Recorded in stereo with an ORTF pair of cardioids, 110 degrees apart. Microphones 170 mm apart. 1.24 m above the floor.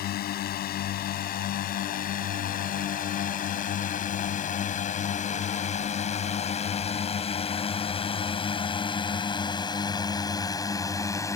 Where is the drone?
70° left; by 11.4 s 20° left.